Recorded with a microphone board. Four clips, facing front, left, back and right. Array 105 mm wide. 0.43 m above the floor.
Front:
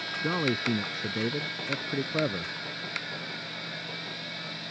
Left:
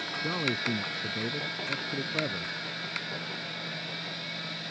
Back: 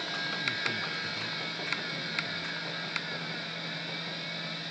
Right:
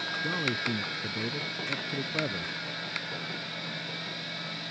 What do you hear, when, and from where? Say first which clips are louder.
0.2 s a man speaking: left 1 dB, front 11 dB; 10° left; by 2.5 s straight ahead